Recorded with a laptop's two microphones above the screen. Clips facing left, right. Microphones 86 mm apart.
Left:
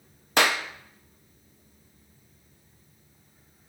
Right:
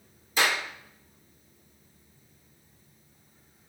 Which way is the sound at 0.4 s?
70° left (ahead or behind).